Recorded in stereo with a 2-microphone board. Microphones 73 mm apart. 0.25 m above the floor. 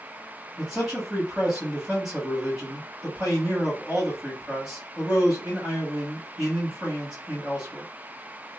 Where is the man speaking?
10° right (ahead or behind), 1.3 m.